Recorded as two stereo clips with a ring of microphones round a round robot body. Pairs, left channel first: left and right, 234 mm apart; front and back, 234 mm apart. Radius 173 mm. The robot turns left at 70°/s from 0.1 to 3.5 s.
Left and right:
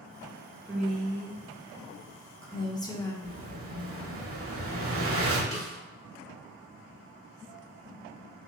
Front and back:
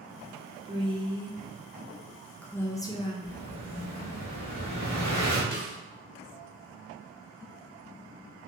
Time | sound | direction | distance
0.7 | a woman speaking | 160° right | 0.7 m
3.2 | an explosion | 45° right | 1.0 m
5.5 | a snare drum | 40° left | 1.7 m